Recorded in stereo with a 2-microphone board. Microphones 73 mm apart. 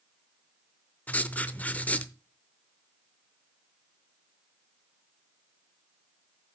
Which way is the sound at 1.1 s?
20° left (ahead or behind).